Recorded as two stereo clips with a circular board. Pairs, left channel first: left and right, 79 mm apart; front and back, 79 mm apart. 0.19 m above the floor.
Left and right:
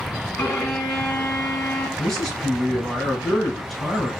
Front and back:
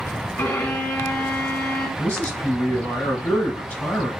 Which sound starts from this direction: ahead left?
A violin, at 0.4 s.